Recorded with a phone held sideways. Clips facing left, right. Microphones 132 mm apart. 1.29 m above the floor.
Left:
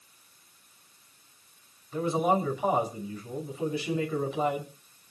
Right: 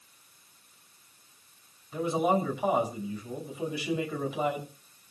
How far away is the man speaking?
About 6.5 m.